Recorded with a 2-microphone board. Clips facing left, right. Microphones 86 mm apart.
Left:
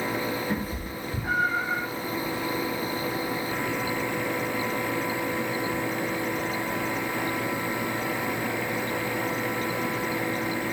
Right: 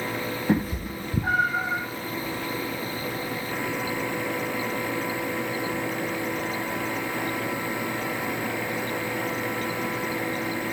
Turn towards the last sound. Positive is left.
turn(degrees=-60)  # may be behind; listen again after turning